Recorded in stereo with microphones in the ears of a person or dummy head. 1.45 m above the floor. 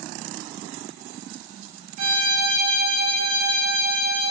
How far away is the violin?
About 5 m.